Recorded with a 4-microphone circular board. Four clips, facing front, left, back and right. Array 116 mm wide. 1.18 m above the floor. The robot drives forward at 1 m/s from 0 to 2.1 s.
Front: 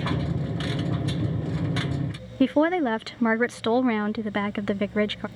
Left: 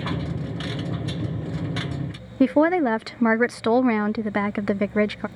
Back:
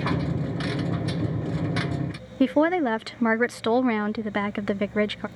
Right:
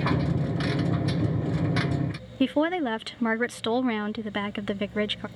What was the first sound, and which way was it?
A woman speaking, 95° left.